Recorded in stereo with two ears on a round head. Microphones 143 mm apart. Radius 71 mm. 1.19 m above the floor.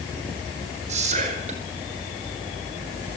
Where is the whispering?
45° right (ahead or behind), 4.5 m.